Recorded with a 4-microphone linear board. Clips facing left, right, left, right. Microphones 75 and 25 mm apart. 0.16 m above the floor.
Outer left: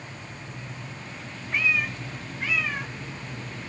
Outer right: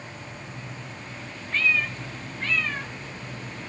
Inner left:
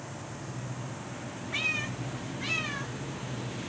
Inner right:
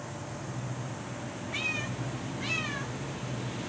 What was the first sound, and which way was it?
A cat meowing, 15° left (ahead or behind).